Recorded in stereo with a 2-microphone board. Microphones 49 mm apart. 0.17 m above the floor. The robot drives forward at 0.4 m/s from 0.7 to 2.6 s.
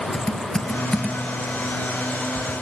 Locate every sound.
0.1 s typing on a keyboard: 15° left (ahead or behind), 1.2 m; by 2.5 s 30° left (ahead or behind), 0.6 m